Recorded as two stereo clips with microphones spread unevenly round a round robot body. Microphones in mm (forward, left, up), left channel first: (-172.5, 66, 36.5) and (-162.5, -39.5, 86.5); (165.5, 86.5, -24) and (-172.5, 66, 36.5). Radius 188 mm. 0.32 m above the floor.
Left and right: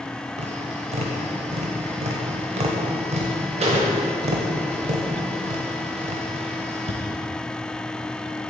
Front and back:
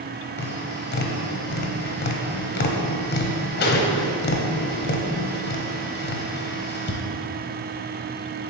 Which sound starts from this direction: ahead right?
Tapping, at 0.4 s.